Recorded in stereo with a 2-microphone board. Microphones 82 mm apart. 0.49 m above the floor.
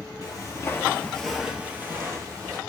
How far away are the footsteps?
About 0.8 m.